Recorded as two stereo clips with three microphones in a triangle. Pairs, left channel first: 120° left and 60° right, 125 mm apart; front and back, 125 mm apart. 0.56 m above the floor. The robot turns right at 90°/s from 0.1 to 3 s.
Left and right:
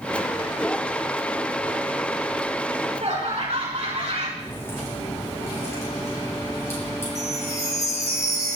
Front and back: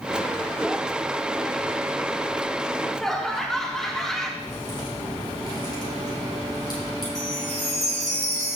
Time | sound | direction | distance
2.7 | laughter | 115° right | 5.5 m
4.4 | a crack | 55° left | 9 m
7.2 | a chime | straight behind | 2.5 m